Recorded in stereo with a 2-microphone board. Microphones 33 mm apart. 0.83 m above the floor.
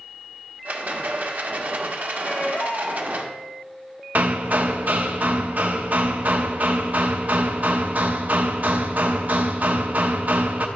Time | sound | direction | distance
0.7 | a rattle | 55° right (ahead or behind) | 1.0 m
2.2 | a baby crying | 60° left (ahead or behind) | 1.4 m
4.2 | hammering | 60° right (ahead or behind) | 0.7 m